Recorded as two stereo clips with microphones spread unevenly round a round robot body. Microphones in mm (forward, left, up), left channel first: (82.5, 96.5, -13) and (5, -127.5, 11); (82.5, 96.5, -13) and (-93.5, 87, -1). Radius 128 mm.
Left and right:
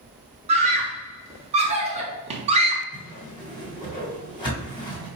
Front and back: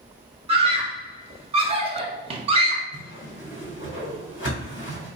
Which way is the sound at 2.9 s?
Straight ahead.